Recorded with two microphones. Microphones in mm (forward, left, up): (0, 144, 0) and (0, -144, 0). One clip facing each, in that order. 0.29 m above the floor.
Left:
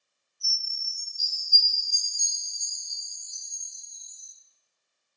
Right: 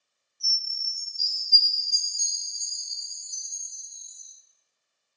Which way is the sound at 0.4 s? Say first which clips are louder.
Right 1 dB; 55° right (ahead or behind).